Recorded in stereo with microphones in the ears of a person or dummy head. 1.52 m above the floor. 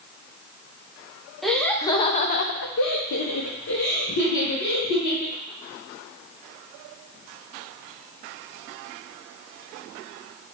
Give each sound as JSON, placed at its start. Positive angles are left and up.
{"t": 1.4, "sound": "laughter", "side_deg": 10, "distance_m": 0.7}